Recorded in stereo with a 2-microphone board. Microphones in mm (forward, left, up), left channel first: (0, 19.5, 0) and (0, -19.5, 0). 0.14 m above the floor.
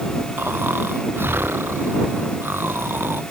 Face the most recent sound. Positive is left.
turn(degrees=-85)